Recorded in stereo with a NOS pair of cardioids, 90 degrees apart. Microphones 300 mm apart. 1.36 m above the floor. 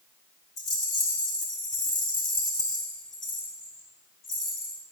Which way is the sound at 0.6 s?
55° left.